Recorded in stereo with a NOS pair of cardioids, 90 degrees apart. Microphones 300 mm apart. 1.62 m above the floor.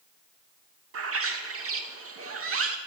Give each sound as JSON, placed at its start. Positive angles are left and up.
{"t": 0.9, "sound": "a bird", "azimuth_deg": -45, "distance_m": 2.5}